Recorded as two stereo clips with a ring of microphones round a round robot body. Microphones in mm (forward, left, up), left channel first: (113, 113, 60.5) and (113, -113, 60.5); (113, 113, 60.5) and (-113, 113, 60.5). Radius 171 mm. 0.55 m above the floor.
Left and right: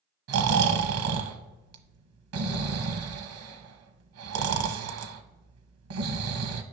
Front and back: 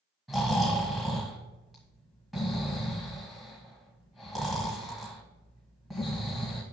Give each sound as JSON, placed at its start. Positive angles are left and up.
{"t": 0.3, "sound": "snoring", "azimuth_deg": -90, "distance_m": 1.0}